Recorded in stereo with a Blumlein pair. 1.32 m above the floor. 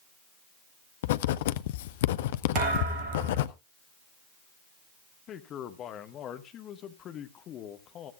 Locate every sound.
1.0 s writing: 55° left, 0.7 m
2.5 s a thud: 35° right, 6 m
5.3 s a man speaking: 30° left, 1.6 m